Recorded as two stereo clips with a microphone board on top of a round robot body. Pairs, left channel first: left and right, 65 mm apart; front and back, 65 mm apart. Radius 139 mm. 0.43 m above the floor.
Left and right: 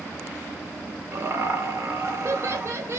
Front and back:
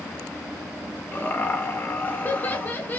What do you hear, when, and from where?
1.1 s laughter: 55° right, 1.9 m